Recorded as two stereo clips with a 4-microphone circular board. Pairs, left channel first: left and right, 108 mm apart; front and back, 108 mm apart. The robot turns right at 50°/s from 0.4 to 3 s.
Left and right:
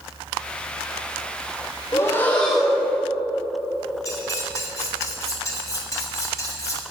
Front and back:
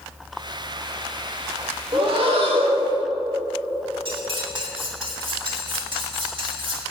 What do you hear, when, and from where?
1.9 s breathing: 145° left, 1.8 m; by 3.0 s 160° right, 1.8 m
4.0 s cutlery clinking: 145° left, 2.0 m